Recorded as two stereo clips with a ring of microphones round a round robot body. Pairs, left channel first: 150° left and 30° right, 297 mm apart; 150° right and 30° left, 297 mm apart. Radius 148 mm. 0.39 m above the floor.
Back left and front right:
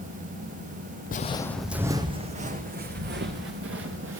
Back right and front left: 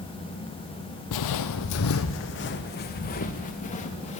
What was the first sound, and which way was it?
Footsteps, 150° right.